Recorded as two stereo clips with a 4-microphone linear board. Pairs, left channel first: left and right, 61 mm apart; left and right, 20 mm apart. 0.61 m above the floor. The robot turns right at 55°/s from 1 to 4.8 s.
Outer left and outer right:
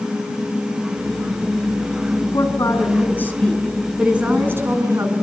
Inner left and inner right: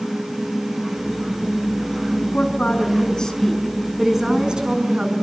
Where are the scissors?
I don't hear scissors.